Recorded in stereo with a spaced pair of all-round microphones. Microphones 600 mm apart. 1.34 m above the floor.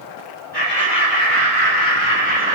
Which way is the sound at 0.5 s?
40° left (ahead or behind).